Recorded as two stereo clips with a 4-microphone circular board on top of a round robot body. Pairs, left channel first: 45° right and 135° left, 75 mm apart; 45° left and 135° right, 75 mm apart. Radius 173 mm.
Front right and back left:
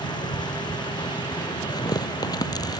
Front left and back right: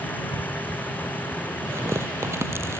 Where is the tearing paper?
75° right.